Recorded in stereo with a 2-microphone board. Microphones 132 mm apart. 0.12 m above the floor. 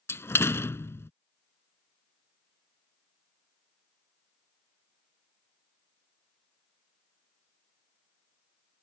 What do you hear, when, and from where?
0.1 s a door slam: 20° left (ahead or behind)